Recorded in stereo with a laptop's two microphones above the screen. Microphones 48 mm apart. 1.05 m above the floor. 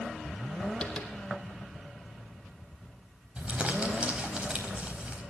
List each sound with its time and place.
0.8 s tapping: 15° left (ahead or behind), 3 m
3.4 s crumpling: 30° right (ahead or behind), 4 m